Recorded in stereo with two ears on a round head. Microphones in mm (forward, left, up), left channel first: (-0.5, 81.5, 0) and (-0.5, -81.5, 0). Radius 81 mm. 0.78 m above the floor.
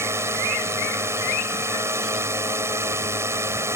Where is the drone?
15° right (ahead or behind).